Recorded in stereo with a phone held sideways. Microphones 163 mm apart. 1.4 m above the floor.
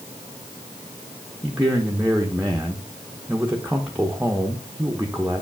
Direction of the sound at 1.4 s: 10° right (ahead or behind).